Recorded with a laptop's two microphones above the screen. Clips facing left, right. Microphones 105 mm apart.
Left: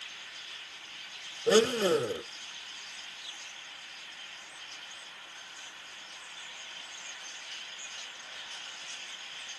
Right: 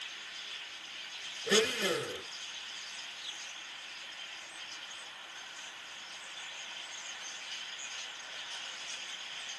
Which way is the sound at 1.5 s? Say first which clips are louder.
Left 7 dB; 35° left (ahead or behind).